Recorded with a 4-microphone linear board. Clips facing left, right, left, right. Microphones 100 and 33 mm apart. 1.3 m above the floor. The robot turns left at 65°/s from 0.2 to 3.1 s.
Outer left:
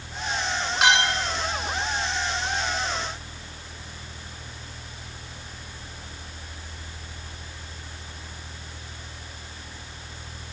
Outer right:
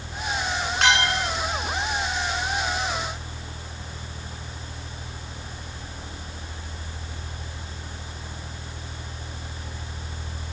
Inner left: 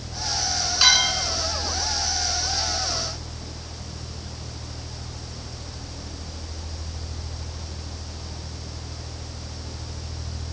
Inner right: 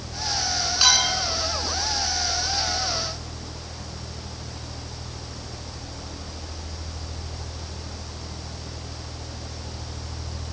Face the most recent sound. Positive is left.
turn(degrees=30)